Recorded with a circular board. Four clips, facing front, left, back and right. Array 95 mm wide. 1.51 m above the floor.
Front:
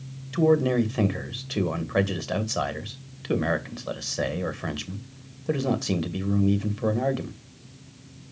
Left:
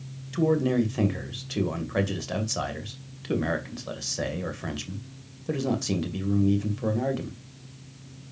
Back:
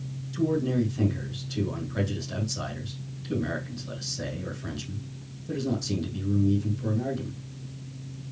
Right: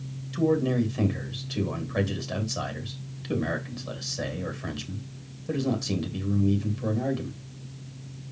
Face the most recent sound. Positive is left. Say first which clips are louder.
# left 1 dB, front 5 dB
turn(degrees=15)